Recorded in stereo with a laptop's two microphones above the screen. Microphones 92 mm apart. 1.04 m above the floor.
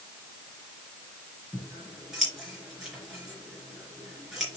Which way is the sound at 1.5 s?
Centre (ahead or behind).